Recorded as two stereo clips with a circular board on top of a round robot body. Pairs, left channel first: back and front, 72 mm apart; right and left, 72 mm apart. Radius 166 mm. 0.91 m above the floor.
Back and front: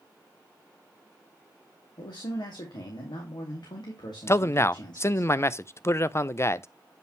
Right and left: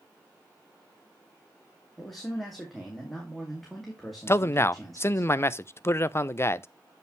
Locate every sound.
2.0 s a man speaking: straight behind, 2.5 m
4.3 s a man speaking: 135° right, 0.6 m